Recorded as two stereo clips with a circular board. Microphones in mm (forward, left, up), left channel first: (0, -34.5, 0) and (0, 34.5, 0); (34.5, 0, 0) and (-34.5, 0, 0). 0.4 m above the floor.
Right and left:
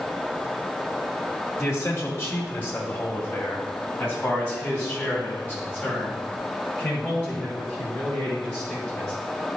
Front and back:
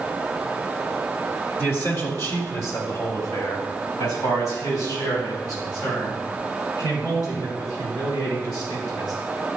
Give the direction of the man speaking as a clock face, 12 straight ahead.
2 o'clock.